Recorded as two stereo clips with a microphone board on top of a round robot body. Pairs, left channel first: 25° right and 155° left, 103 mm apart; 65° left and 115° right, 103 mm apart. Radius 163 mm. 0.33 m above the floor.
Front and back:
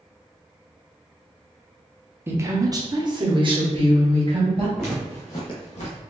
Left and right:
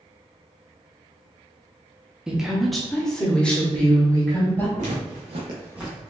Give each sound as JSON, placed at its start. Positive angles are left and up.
{"t": 2.3, "sound": "a woman speaking", "azimuth_deg": 175, "distance_m": 1.1}
{"t": 4.8, "sound": "footsteps", "azimuth_deg": -110, "distance_m": 1.3}